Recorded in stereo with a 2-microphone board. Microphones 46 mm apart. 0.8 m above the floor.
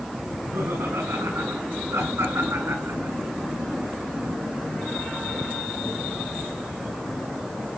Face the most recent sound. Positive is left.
turn(degrees=-85)